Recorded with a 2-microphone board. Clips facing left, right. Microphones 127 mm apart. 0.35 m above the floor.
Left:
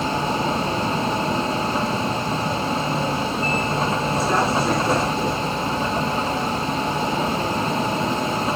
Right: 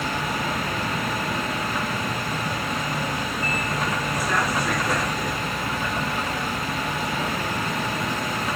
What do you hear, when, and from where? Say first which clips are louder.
0.0 s a vehicle: left 5 dB; 30° left (ahead or behind)